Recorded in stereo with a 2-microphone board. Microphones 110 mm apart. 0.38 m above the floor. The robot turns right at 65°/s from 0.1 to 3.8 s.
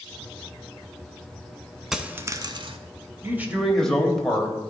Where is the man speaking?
30° right, 1.2 m; by 4.6 s 5° left, 1.2 m.